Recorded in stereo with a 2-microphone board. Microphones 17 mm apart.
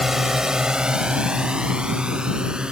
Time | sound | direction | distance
0.0 | a drone | 20° right (ahead or behind) | ?